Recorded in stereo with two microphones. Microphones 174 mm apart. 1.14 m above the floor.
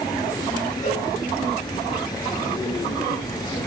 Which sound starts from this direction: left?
A cowbell, at 0.8 s.